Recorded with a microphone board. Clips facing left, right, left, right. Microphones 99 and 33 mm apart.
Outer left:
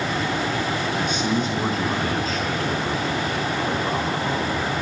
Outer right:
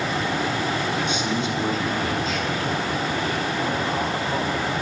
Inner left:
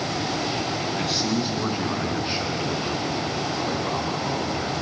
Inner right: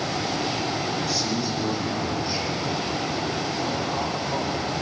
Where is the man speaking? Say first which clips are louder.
Outer left 1 dB, inner left 1 dB; 45° left (ahead or behind), 6.5 m; by 4.8 s 30° left (ahead or behind), 8 m.